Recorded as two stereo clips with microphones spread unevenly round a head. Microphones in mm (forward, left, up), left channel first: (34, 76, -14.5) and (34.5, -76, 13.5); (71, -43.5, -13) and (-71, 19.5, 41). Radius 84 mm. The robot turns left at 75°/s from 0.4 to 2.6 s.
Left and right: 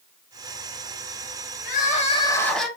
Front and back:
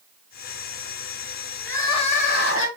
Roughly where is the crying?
Left.